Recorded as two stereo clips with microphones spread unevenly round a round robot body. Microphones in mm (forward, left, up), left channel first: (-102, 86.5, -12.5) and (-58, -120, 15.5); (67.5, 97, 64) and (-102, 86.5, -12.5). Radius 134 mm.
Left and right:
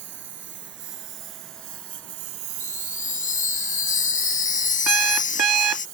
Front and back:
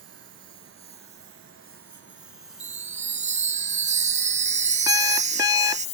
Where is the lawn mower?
105° right; by 6.0 s 5° right.